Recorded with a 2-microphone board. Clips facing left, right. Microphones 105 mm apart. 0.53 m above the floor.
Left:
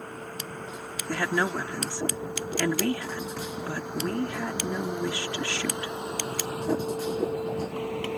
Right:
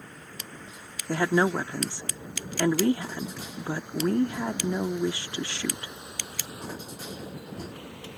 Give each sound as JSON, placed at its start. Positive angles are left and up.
{"t": 0.0, "sound": "a vehicle", "side_deg": 55}
{"t": 1.1, "sound": "a woman speaking", "side_deg": -20}